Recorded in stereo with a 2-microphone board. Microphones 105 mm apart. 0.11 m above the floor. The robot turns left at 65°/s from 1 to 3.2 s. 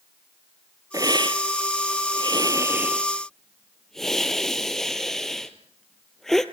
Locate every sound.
0.9 s a hiss: 35° right (ahead or behind), 1.2 m; by 6.5 s 5° left (ahead or behind), 1.2 m